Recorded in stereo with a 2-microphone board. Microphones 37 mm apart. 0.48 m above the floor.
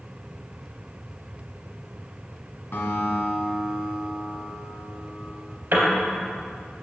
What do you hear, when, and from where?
2.7 s a guitar: 85° left, 1.6 m
5.7 s a piano: 70° right (ahead or behind), 2 m